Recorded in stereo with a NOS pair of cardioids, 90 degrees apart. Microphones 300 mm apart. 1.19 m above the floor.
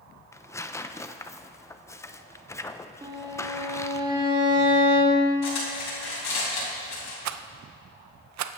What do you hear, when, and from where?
0.3 s tearing paper: 10° left, 0.5 m
3.0 s a violin: 15° right, 2.5 m
5.4 s cutlery clinking: 60° left, 5.5 m
7.2 s a rattle: 60° right, 0.6 m